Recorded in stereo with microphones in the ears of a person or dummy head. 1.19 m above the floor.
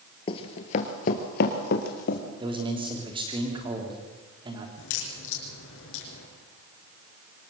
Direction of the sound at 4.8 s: 75° left (ahead or behind).